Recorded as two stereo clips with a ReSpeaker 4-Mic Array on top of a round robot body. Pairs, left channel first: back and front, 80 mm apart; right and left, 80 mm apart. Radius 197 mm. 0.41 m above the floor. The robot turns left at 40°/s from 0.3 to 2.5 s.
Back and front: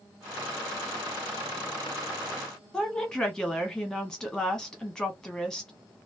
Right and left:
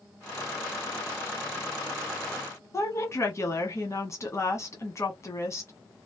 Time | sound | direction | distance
2.7 | a woman speaking | 105° right | 1.4 m